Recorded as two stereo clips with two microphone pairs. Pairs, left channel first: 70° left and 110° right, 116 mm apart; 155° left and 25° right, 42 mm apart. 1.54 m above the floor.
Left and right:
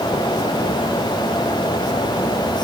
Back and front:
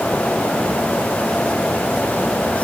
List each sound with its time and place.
Only background noise.